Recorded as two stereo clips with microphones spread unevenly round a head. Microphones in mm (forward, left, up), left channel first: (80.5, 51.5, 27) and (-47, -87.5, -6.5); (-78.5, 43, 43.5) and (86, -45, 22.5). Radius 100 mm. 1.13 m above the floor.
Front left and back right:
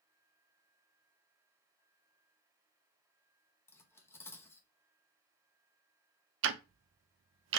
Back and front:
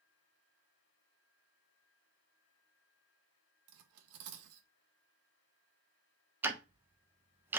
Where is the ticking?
110° right, 0.5 m.